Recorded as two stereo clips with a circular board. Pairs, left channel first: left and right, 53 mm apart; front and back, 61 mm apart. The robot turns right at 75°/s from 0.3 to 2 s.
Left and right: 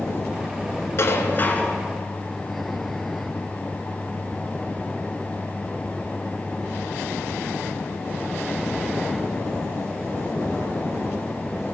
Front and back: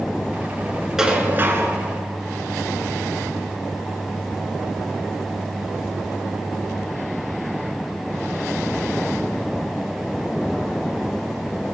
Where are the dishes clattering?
100° left, 1.4 m; by 1.8 s 160° left, 1.4 m.